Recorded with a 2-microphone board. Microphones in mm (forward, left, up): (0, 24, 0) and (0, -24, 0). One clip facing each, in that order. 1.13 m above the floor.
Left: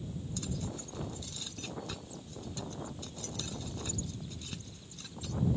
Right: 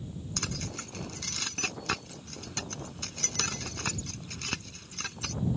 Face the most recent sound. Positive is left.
turn(degrees=-75)  # may be behind; listen again after turning